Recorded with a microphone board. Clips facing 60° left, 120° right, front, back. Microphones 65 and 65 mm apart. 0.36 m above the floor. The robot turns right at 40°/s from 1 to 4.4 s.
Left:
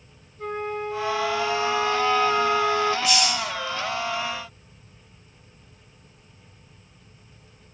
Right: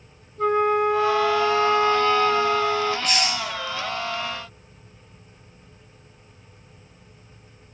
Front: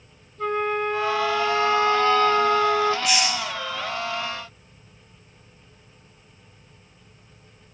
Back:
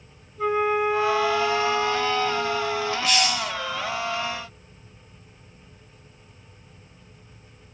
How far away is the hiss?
About 2.5 m.